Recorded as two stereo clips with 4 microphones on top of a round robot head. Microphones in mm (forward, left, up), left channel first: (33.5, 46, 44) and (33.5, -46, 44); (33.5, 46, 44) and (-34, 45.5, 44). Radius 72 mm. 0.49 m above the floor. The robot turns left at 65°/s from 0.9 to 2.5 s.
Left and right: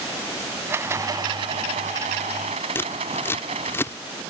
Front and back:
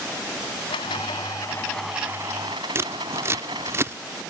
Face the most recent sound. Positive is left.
turn(degrees=150)